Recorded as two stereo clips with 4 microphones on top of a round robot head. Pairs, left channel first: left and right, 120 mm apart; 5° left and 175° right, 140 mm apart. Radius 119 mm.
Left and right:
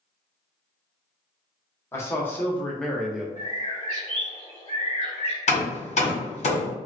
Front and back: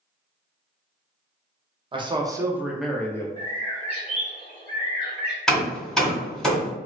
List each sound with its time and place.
1.9 s a man speaking: 150° left, 0.8 m; by 3.3 s 15° right, 0.6 m
3.4 s a bird: 60° left, 1.4 m
5.5 s hammering: 90° left, 1.4 m